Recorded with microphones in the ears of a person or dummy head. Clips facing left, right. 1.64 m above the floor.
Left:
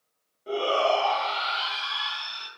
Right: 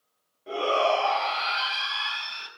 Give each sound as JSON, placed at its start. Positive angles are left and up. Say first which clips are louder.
{"t": 0.5, "sound": "a shout", "louder": "even", "side_deg": 5, "distance_m": 1.6}